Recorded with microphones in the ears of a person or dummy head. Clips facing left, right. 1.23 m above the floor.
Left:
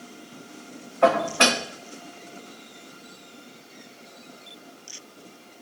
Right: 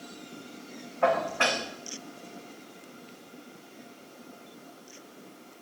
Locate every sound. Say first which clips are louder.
1.0 s dishes clattering: left 6 dB; 55° left (ahead or behind), 0.8 m